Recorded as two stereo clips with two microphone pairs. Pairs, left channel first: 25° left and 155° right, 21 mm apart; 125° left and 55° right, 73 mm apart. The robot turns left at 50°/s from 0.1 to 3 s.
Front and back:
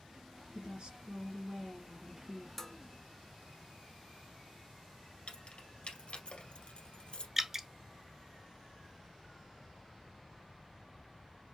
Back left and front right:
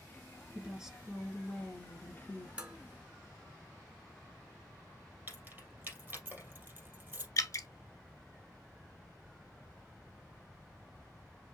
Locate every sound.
0.6 s a woman speaking: 120° right, 2.0 m; by 2.5 s 145° left, 2.0 m
2.6 s dishes clattering: 15° right, 0.9 m; by 2.8 s 25° right, 0.9 m
5.3 s keys jangling: 5° left, 2 m
7.4 s dripping: 135° left, 0.6 m